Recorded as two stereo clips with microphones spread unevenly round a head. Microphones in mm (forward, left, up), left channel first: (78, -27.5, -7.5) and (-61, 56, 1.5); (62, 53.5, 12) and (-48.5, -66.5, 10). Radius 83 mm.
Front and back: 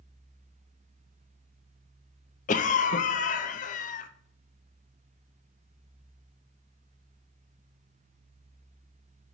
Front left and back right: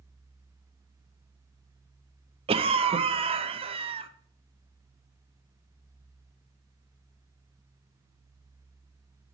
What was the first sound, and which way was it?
A cough, 75° right.